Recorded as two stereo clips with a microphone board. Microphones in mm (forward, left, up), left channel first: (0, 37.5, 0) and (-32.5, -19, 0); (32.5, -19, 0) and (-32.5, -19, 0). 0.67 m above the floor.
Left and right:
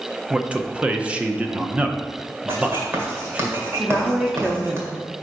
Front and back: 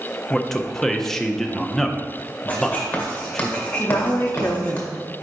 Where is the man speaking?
75° right, 0.5 m.